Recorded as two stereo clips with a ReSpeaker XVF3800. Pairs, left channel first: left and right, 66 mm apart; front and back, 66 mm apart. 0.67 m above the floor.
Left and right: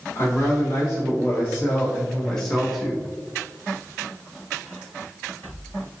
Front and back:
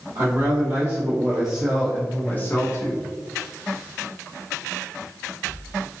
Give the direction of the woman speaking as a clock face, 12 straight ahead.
7 o'clock.